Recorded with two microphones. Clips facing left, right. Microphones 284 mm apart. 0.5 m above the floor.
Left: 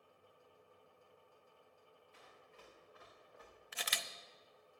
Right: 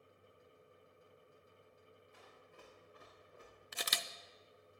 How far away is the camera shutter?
About 0.5 m.